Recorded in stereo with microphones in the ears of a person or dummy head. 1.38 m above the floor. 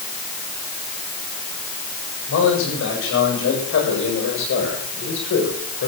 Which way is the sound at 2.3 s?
70° left (ahead or behind).